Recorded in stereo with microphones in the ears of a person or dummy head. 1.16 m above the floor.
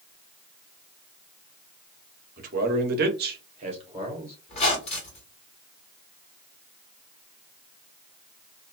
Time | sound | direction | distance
2.4 | a man speaking | 45° right (ahead or behind) | 0.9 m
4.5 | a squeak | 35° left (ahead or behind) | 1.4 m